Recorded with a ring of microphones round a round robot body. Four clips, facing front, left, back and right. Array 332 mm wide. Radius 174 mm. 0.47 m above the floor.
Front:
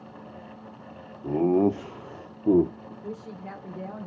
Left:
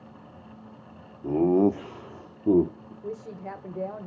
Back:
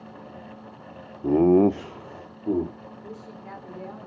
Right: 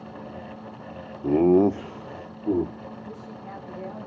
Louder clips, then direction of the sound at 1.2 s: Right 3 dB, back 4 dB; 150° right.